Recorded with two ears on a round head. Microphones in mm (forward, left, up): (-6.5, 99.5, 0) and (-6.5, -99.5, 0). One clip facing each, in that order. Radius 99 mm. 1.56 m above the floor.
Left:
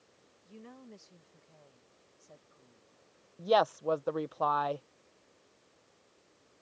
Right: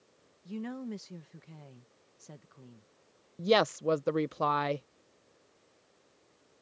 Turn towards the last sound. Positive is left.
turn(degrees=-30)  # may be behind; listen again after turning